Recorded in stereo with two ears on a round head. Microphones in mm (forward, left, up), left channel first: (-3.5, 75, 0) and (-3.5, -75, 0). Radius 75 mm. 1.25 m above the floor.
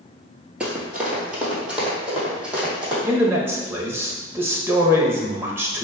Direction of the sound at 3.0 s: 15° right (ahead or behind).